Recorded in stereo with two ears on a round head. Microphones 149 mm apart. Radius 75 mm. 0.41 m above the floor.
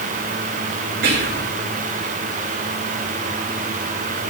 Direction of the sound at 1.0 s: 65° right (ahead or behind).